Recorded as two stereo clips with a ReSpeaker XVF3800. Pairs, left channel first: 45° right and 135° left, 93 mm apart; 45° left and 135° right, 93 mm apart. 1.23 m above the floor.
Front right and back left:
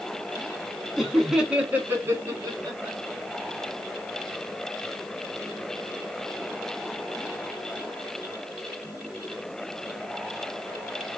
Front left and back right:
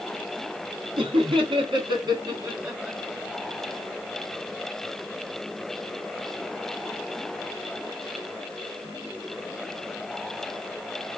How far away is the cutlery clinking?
I don't hear cutlery clinking.